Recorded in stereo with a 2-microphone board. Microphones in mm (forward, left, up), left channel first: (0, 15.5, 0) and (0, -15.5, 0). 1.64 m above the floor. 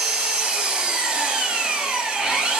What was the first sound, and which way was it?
An engine running, 25° right (ahead or behind).